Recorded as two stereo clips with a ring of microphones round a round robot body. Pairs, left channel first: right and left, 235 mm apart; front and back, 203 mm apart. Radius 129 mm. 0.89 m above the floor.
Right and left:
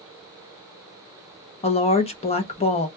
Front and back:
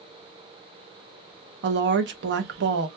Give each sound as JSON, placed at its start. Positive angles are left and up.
{"t": 1.6, "sound": "a woman speaking", "azimuth_deg": -155, "distance_m": 0.6}